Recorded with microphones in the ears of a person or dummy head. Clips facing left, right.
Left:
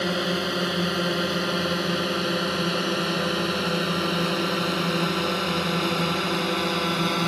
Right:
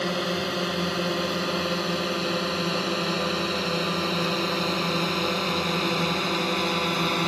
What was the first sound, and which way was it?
A drone, 10° left (ahead or behind).